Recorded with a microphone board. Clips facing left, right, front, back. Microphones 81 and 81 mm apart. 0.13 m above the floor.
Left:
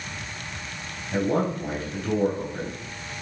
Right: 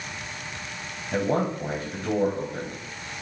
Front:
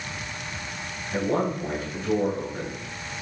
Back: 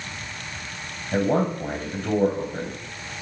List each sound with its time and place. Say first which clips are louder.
1.1 s a man speaking: left 1 dB, back 3 dB; 135° right, 4 m